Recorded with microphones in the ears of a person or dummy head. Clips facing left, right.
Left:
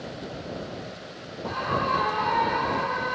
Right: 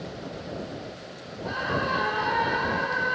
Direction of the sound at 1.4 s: 5° right (ahead or behind).